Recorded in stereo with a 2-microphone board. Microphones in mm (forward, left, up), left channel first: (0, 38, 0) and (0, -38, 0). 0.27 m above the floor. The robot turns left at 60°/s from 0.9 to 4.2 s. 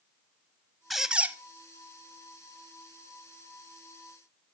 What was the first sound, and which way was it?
A squeak, centre (ahead or behind).